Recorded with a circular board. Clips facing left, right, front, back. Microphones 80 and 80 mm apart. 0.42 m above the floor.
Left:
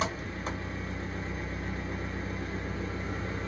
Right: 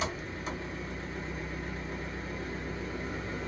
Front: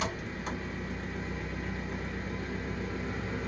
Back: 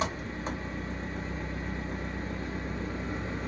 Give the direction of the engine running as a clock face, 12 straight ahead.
8 o'clock.